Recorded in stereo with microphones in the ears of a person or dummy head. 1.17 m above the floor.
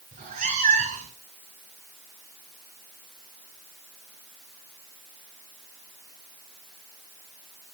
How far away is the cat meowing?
About 4.5 m.